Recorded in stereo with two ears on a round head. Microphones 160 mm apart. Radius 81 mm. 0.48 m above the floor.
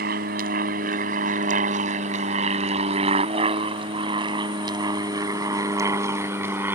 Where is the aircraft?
50° right (ahead or behind); by 6.8 s 10° right (ahead or behind).